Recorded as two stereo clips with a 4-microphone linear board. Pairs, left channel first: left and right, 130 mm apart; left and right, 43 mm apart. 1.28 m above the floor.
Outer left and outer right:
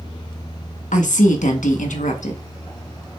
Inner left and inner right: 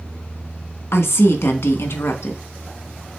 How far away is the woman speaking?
About 1.0 m.